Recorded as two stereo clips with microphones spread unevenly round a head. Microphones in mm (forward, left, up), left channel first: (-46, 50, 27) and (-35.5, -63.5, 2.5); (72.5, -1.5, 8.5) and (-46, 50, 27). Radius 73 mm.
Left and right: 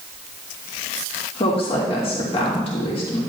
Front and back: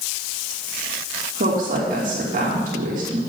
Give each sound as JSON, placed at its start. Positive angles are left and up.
{"t": 1.4, "sound": "a woman speaking", "azimuth_deg": 135, "distance_m": 2.5}